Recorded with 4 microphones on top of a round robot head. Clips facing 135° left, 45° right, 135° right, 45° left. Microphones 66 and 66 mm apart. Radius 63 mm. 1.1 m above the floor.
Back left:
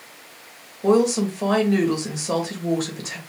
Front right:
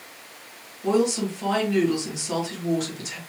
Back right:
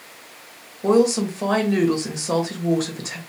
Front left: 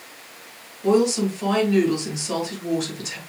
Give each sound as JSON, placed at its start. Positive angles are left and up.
{"t": 0.8, "sound": "a woman speaking", "azimuth_deg": 180, "distance_m": 1.8}